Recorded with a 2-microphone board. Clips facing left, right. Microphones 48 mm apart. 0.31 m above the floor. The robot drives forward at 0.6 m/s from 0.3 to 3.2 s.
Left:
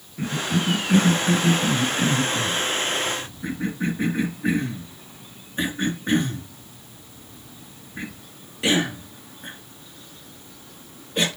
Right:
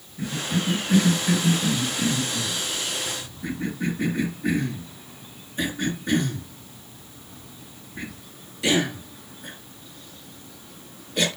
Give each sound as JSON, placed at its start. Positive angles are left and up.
{"t": 0.2, "sound": "a cough", "side_deg": 55, "distance_m": 2.5}